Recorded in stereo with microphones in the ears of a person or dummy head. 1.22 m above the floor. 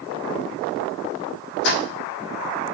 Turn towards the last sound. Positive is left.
turn(degrees=60)  # may be behind; listen again after turning